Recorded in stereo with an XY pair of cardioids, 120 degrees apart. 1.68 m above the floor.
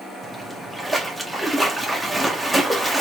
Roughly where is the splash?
Ahead.